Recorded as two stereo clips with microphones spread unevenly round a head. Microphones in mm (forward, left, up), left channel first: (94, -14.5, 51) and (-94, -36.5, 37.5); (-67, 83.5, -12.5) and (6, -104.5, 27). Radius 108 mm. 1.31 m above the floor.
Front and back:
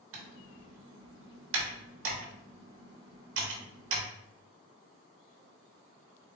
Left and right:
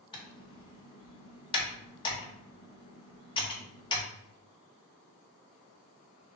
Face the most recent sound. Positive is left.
turn(degrees=175)